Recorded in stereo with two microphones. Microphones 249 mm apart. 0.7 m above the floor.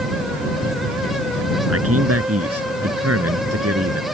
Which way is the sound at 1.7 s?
65° right (ahead or behind).